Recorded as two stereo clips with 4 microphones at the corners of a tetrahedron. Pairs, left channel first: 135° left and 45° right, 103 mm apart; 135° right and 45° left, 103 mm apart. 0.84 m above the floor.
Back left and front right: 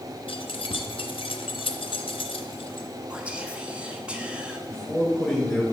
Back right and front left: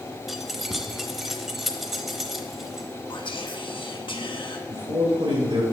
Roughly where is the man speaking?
Ahead left.